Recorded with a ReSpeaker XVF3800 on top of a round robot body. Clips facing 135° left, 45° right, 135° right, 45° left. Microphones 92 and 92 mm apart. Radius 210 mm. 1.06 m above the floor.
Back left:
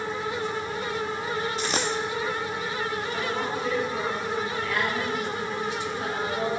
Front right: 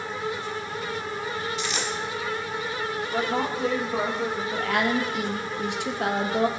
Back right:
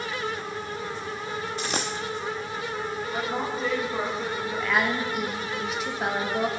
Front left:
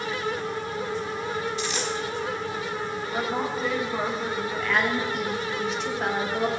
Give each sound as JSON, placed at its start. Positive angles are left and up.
{"t": 1.6, "sound": "a dropped coin", "azimuth_deg": -175, "distance_m": 0.7}
{"t": 3.1, "sound": "a woman speaking", "azimuth_deg": -40, "distance_m": 4.0}
{"t": 4.5, "sound": "a woman speaking", "azimuth_deg": -50, "distance_m": 2.5}